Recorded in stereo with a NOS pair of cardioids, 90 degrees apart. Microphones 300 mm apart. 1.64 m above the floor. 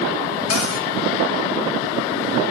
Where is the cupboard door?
60° left, 1.3 m.